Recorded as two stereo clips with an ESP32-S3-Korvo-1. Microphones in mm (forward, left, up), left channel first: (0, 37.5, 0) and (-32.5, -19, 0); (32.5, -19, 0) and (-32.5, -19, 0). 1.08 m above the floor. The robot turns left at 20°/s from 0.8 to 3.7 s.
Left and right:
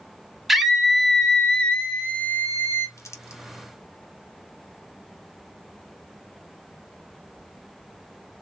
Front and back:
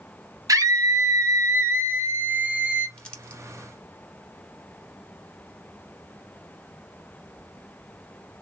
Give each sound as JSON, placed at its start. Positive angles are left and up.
{"t": 0.5, "sound": "a scream", "azimuth_deg": 155, "distance_m": 1.4}
{"t": 3.0, "sound": "crumpling", "azimuth_deg": 70, "distance_m": 1.0}